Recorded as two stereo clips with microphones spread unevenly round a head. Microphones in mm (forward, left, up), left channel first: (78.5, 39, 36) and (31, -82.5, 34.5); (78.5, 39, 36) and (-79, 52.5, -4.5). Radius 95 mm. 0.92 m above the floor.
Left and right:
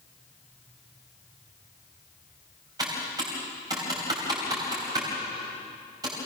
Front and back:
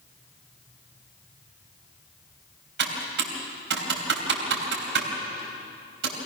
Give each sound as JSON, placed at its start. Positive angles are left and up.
{"t": 2.8, "sound": "typing on a keyboard", "azimuth_deg": 180, "distance_m": 3.5}